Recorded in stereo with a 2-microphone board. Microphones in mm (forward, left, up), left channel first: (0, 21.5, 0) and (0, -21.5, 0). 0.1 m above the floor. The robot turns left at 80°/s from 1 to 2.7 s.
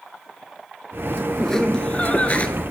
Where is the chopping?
I don't hear chopping.